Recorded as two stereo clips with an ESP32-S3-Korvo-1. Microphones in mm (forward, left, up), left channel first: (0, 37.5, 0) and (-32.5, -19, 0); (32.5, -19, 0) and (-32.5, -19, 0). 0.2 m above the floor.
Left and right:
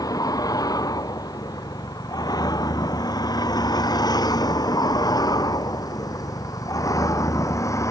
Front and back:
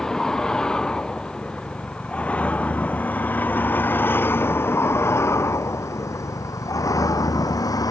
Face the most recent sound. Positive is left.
turn(degrees=20)